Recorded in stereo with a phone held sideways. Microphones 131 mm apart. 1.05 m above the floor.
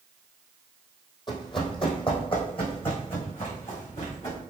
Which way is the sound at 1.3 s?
35° left (ahead or behind).